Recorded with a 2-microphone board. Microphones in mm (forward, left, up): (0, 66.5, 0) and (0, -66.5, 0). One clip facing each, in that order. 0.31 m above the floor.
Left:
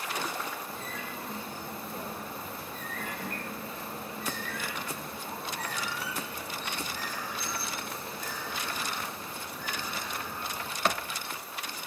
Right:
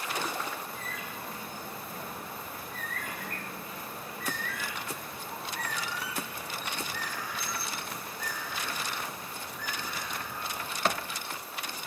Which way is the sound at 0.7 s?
25° left (ahead or behind).